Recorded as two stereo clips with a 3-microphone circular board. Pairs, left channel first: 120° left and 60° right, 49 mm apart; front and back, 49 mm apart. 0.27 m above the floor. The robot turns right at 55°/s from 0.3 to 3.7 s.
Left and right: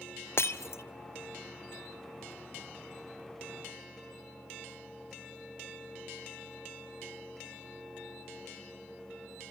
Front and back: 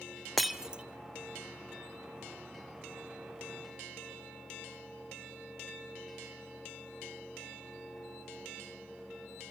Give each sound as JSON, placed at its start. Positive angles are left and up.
{"t": 0.4, "sound": "breaking glass", "azimuth_deg": 90, "distance_m": 0.9}